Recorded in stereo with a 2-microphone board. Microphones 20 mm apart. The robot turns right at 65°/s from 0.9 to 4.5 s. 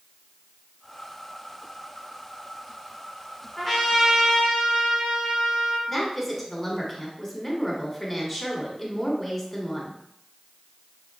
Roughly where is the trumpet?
Behind.